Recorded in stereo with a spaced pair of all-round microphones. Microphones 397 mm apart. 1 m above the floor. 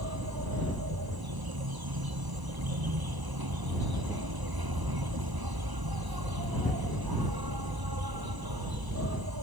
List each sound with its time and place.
0.0 s an insect: 65° right (ahead or behind)